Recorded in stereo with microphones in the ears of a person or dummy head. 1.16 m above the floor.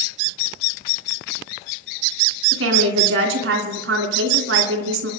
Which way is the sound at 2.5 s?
80° right.